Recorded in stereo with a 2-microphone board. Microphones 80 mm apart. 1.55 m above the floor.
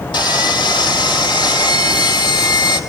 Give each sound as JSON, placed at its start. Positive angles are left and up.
{"t": 0.1, "sound": "sawing", "side_deg": 70, "distance_m": 3.0}